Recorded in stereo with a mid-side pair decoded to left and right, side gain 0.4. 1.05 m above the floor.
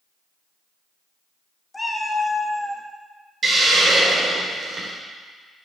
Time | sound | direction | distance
1.7 | a cat meowing | 20° left | 1.4 m
3.4 | a hiss | 40° right | 3.5 m